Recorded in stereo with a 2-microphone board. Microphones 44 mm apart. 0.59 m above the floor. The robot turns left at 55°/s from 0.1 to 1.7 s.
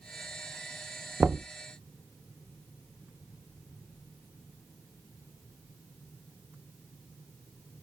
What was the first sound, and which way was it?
Knocking, 40° right (ahead or behind).